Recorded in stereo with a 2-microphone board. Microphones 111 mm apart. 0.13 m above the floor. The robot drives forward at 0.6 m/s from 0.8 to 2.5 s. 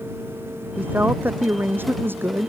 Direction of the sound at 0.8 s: 15° right (ahead or behind).